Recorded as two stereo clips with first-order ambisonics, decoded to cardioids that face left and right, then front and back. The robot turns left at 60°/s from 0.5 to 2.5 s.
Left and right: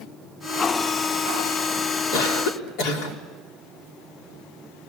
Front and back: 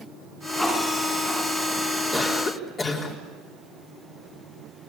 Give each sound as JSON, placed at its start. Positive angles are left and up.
{"t": 2.1, "sound": "a cough", "azimuth_deg": 90, "distance_m": 4.0}